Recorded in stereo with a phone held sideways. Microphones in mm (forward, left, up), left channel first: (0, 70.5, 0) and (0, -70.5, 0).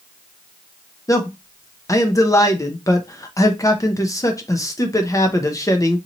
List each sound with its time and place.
1.1 s a man speaking: 25° left (ahead or behind), 0.6 m